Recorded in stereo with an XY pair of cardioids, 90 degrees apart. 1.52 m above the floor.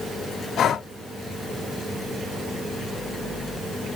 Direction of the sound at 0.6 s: 70° left.